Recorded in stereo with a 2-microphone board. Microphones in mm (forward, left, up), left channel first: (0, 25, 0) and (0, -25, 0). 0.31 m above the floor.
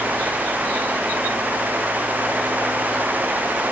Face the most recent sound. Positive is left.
No sound to turn to.